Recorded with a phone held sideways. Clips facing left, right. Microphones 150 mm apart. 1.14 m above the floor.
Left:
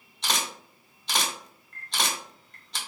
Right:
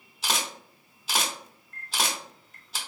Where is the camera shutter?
5° right (ahead or behind), 1.1 m.